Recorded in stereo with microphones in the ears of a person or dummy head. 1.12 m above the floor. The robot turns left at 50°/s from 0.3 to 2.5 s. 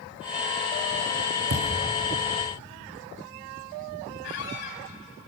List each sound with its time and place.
1.5 s a thud: 75° right (ahead or behind), 4 m; by 1.7 s 70° right (ahead or behind), 4 m
4.2 s a squeak: 60° left (ahead or behind), 3 m